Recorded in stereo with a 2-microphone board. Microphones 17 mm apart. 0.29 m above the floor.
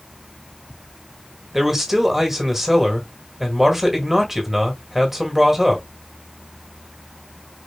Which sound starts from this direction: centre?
A man speaking, at 1.5 s.